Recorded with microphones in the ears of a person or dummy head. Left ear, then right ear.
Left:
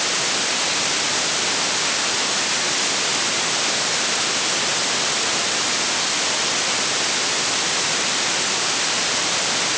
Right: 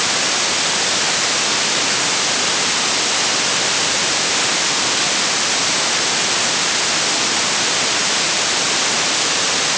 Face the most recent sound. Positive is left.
No sound to turn to.